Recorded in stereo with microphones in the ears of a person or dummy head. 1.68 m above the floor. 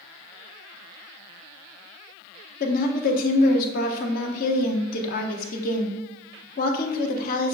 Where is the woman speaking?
50° left (ahead or behind), 0.8 m.